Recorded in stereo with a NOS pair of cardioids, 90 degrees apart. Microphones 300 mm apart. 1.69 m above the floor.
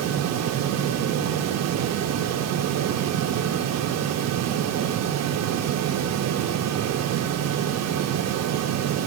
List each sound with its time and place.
0.0 s a fan: 60° right, 0.7 m